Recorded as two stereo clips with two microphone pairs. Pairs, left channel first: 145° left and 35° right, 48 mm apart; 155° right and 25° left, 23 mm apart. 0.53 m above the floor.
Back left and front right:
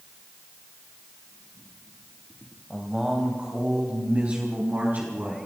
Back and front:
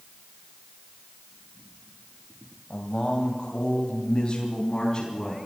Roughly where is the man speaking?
Behind right.